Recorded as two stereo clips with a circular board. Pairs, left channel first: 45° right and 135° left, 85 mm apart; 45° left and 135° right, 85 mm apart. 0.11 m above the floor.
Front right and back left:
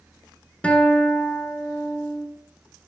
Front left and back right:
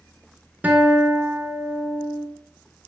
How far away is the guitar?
About 0.5 m.